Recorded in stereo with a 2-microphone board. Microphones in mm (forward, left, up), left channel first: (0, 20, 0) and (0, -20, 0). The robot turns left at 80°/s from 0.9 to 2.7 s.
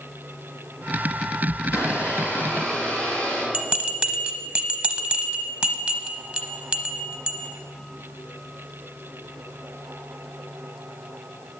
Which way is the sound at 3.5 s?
30° right (ahead or behind).